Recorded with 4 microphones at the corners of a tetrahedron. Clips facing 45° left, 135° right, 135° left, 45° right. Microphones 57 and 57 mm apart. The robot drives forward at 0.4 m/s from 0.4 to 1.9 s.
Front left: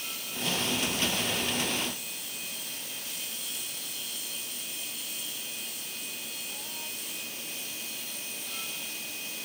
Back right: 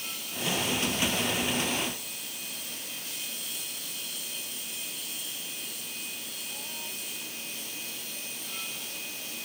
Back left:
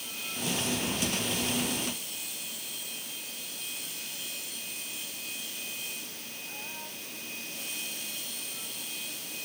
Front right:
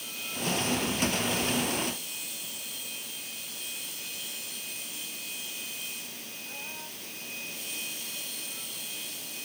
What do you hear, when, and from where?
Only background noise.